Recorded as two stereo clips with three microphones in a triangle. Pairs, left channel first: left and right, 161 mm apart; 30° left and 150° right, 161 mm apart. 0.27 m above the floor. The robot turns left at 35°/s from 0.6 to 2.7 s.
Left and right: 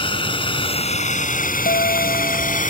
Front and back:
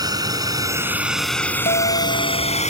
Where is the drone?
145° left; by 2.7 s 65° left.